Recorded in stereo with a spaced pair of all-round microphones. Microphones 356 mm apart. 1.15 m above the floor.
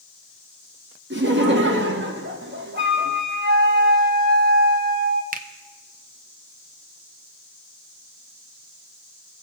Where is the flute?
30° right (ahead or behind), 1.2 m.